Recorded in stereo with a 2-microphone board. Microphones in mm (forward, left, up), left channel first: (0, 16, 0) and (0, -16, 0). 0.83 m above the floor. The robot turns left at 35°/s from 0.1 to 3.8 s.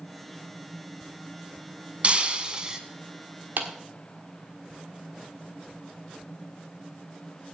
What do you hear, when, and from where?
2.0 s breaking glass: 40° right (ahead or behind), 1.0 m; by 2.8 s 20° right (ahead or behind), 1.0 m
3.6 s a clap: 75° right (ahead or behind), 1.3 m; by 3.7 s 70° right (ahead or behind), 1.3 m